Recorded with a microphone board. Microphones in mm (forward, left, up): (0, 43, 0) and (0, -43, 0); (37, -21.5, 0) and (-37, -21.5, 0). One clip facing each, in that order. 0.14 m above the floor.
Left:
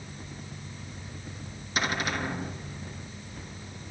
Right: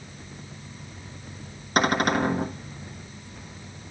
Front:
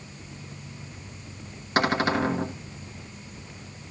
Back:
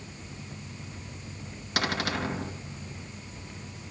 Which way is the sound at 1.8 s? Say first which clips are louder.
Right 8 dB, front 7 dB; 60° right.